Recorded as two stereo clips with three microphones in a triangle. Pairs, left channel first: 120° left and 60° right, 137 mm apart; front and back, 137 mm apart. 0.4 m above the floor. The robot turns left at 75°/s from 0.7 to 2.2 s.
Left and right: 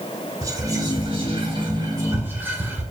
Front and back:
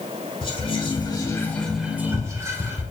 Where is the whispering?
10° right, 1.3 m; by 2.8 s 125° right, 1.3 m.